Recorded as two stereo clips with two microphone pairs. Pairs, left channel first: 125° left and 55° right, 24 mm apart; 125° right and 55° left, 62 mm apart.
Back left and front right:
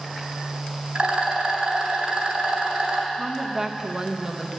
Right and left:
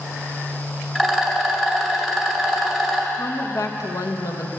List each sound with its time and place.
0.9 s a rattle: 40° right, 1.8 m
3.1 s a woman speaking: 120° right, 0.9 m